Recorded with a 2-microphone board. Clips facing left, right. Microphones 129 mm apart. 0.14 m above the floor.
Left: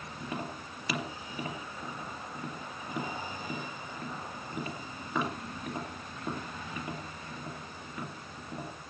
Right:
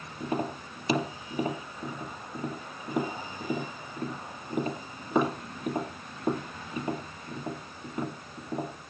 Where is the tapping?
25° right (ahead or behind), 2.5 m.